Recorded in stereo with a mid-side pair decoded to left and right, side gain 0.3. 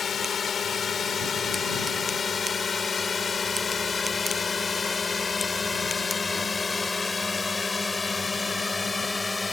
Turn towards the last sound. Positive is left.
turn(degrees=30)